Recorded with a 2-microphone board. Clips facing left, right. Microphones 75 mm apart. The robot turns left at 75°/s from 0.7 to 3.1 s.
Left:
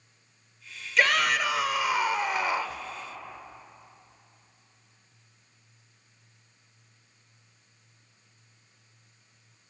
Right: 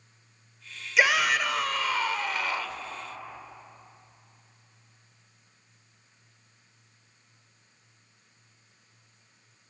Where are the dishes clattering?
No dishes clattering in this recording.